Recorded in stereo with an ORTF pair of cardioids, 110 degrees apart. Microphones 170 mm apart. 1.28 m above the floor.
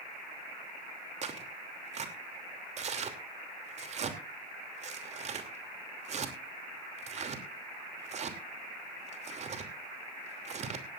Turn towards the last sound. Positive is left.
turn(degrees=-40)